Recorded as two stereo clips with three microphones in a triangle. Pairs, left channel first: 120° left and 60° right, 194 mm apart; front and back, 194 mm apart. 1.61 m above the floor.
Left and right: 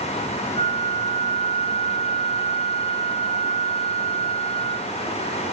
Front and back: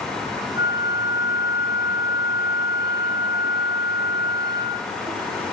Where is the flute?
20° right, 4 m.